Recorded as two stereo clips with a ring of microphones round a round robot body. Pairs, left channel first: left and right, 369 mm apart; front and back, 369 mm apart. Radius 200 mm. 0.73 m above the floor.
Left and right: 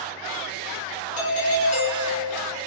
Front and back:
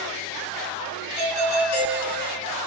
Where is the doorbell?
20° left, 3.5 m.